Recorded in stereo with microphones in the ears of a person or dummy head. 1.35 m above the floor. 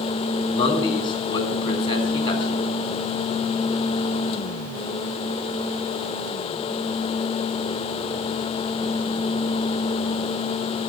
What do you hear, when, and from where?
0.5 s a man speaking: 25° left (ahead or behind), 3.5 m